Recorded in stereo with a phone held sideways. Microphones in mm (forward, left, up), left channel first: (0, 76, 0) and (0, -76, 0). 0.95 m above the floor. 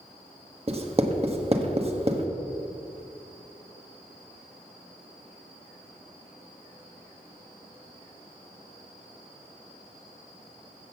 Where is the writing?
40° right (ahead or behind), 1.2 m.